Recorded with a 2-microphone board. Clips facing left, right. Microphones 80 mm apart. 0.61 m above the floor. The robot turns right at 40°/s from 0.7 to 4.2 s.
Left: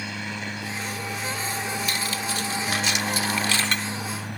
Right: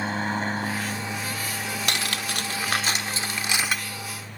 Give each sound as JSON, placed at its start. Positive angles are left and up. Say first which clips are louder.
{"t": 0.0, "sound": "a helicopter", "louder": "right 6 dB", "azimuth_deg": -45}
{"t": 1.9, "sound": "cutlery clinking", "louder": "even", "azimuth_deg": -85}